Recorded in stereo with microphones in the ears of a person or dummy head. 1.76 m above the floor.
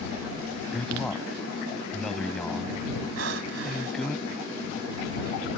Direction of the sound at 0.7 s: Centre (ahead or behind).